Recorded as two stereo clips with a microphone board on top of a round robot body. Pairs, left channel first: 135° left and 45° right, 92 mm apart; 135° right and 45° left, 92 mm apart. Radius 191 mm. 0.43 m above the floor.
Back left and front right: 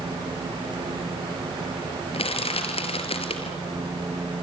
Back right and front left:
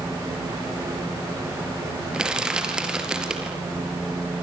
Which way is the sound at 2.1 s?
130° left.